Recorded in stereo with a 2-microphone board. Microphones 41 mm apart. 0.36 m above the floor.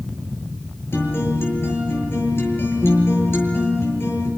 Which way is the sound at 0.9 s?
65° left (ahead or behind).